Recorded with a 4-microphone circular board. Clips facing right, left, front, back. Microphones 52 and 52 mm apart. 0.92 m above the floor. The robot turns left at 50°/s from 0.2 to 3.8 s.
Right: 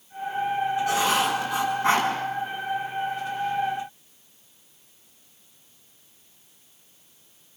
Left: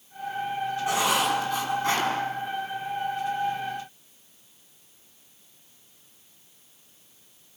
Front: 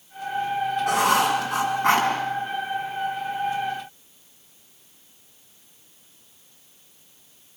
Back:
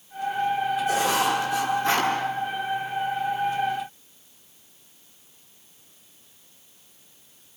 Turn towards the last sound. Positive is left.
turn(degrees=-125)